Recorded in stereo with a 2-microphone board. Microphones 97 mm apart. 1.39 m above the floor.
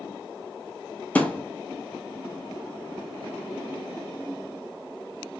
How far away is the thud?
About 1.0 m.